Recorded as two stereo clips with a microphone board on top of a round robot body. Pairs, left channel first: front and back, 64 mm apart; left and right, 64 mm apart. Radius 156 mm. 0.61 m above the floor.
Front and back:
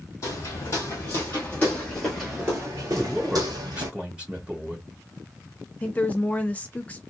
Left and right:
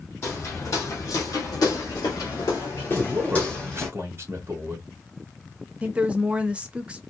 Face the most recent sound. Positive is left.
turn(degrees=-40)